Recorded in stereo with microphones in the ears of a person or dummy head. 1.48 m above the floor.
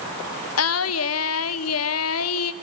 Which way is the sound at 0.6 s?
85° left.